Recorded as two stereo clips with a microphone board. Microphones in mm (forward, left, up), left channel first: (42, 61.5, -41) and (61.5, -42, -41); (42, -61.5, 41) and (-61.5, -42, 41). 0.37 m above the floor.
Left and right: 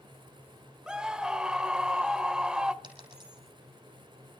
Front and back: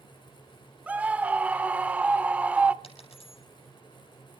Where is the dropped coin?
40° right, 5 m.